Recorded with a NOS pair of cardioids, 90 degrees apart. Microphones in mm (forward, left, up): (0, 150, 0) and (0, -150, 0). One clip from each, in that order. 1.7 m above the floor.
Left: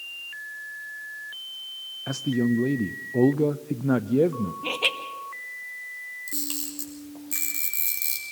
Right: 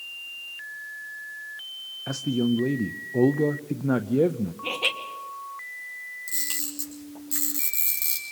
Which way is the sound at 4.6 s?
10° left.